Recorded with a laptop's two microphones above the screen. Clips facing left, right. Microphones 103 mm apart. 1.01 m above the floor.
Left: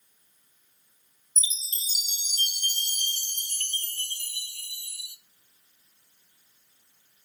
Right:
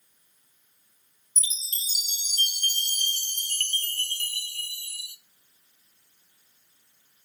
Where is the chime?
65° right (ahead or behind), 0.5 m.